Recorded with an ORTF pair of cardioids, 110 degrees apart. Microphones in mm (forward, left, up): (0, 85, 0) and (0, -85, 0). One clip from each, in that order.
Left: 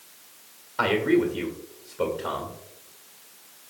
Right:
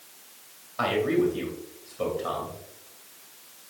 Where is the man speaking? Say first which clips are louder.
Left 2 dB; 50° left, 1.8 m.